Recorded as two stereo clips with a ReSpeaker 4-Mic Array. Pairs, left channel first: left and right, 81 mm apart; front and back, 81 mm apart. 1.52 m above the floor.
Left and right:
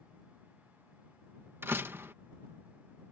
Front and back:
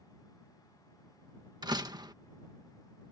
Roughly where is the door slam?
Behind right.